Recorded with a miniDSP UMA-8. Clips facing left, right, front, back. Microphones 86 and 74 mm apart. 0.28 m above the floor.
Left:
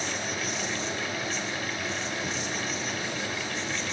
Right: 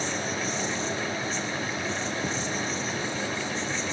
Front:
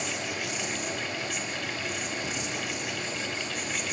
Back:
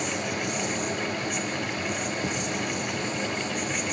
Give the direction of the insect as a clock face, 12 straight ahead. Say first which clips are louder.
Right 2 dB, back 4 dB; 5 o'clock.